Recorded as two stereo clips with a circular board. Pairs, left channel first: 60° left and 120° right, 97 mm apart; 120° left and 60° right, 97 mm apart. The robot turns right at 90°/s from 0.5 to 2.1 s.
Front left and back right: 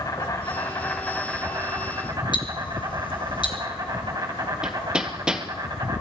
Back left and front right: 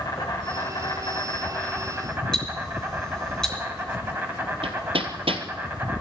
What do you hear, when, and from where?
0.0 s an insect: 95° left, 2.5 m; by 6.0 s 120° right, 2.5 m
2.3 s ticking: 35° left, 3 m
4.6 s hammering: 40° right, 1.7 m